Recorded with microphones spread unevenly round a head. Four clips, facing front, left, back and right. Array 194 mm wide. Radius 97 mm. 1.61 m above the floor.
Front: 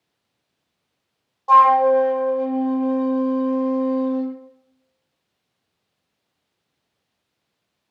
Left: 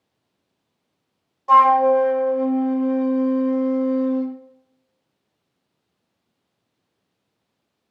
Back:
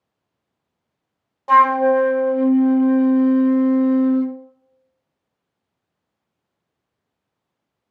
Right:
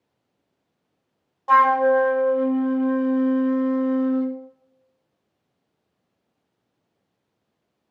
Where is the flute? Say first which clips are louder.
Left 3 dB, front 1 dB; 175° right, 0.7 m.